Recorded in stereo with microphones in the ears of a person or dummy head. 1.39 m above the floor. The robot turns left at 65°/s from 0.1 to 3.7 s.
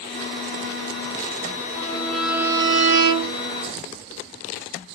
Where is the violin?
30° left, 0.6 m; by 3.4 s 75° right, 0.6 m.